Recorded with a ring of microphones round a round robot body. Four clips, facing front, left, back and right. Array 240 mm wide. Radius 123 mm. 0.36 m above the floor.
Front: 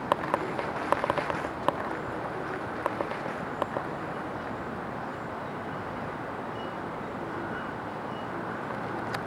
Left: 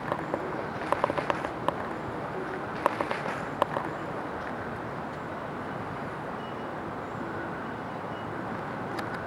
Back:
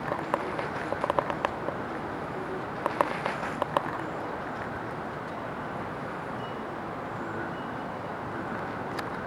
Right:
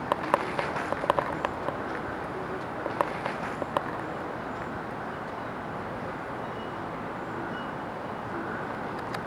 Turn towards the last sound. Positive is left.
No sound to turn to.